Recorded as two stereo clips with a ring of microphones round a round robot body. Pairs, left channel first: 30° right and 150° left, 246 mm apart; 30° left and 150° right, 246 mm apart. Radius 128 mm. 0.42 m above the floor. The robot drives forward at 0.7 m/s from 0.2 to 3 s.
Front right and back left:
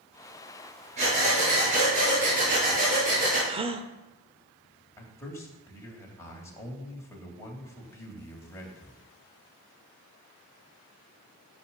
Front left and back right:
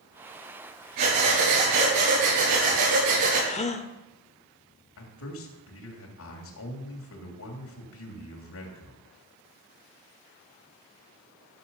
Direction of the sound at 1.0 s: 145° right.